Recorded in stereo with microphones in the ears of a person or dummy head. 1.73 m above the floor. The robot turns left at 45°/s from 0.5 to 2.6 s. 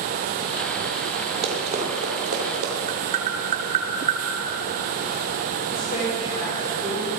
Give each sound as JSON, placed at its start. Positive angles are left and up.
{"t": 1.4, "sound": "running footsteps", "side_deg": -35, "distance_m": 2.5}
{"t": 2.9, "sound": "tapping", "side_deg": -50, "distance_m": 1.1}
{"t": 5.7, "sound": "a woman speaking", "side_deg": 50, "distance_m": 5.0}